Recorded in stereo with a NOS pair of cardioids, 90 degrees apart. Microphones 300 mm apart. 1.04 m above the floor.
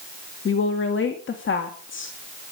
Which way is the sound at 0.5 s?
45° left.